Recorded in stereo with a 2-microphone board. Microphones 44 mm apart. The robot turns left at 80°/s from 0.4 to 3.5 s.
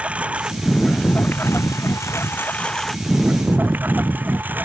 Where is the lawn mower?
150° right; by 4.7 s 40° right.